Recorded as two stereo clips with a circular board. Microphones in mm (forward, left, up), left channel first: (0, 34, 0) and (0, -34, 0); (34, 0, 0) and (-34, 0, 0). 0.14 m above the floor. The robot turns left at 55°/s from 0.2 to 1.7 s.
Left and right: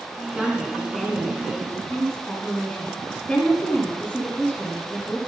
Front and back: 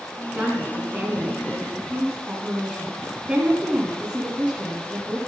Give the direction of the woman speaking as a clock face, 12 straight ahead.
5 o'clock.